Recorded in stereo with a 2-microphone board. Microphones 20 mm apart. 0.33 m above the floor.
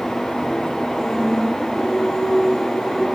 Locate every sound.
1.0 s singing: 25° right (ahead or behind), 1.4 m